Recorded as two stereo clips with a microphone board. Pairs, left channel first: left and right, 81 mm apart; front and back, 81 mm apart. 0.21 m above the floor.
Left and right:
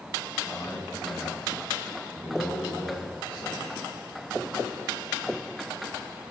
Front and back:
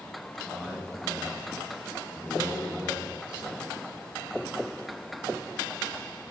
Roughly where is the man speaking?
Behind left.